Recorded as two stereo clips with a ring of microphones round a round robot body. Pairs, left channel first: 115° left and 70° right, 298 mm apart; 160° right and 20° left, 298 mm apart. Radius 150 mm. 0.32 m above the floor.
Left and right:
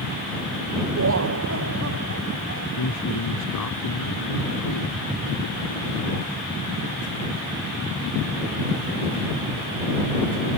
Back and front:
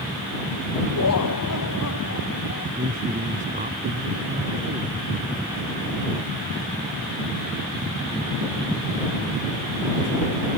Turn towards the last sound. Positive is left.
turn(degrees=90)